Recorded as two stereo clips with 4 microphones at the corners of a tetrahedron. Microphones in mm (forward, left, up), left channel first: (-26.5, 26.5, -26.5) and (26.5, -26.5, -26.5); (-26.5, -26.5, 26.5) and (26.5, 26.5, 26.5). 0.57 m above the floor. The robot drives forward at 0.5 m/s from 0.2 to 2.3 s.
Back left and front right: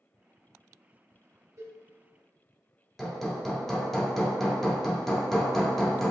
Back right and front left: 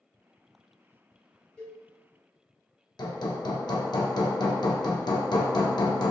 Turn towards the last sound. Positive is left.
turn(degrees=-140)